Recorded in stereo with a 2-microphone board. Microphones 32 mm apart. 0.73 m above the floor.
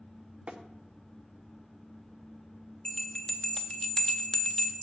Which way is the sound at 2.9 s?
20° left (ahead or behind).